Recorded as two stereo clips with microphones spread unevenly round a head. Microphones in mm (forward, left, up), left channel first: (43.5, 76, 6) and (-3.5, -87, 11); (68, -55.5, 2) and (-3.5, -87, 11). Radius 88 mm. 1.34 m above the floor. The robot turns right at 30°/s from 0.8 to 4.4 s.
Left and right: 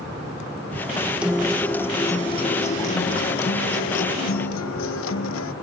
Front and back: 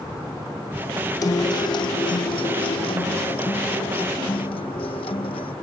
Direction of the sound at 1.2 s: 25° right.